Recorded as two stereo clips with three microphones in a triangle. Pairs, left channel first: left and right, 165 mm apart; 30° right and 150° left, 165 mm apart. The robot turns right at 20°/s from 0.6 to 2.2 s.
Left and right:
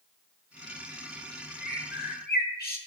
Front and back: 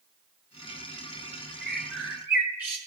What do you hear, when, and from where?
1.6 s a bird: 60° left, 1.5 m; by 2.8 s 75° left, 1.5 m